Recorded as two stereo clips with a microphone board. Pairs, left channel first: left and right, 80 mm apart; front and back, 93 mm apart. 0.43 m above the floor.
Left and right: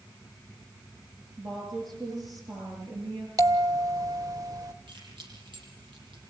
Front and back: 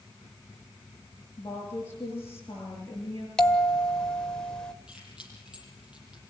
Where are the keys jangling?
100° right, 9.5 m.